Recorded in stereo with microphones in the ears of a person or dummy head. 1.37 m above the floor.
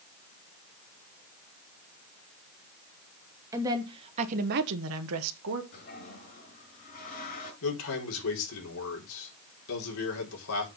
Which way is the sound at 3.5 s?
15° right (ahead or behind).